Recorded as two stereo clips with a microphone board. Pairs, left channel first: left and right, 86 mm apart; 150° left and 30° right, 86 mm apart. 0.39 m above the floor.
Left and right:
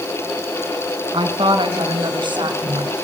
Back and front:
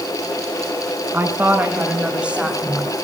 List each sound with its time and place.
1.1 s a woman speaking: 95° right, 4.5 m; by 2.9 s 115° right, 5.5 m